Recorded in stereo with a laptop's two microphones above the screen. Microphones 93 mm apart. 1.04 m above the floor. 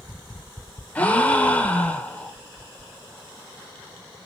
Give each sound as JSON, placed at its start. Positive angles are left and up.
{"t": 0.9, "sound": "a gasp", "side_deg": 15, "distance_m": 2.0}